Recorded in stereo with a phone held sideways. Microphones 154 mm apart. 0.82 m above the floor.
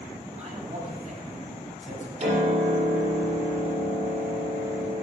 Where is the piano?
45° right (ahead or behind), 6 m.